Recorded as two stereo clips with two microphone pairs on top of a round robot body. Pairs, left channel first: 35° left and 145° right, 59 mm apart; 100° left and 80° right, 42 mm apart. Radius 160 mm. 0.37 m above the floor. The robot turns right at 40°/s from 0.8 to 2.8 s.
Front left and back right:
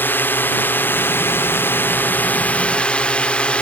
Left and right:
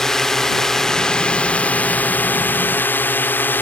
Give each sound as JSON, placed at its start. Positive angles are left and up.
{"t": 0.0, "sound": "a drone", "azimuth_deg": 10}